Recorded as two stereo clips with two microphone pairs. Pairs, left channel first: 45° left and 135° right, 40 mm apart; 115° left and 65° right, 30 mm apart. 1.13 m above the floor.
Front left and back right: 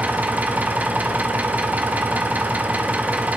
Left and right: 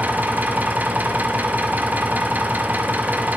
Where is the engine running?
90° right, 1.0 m.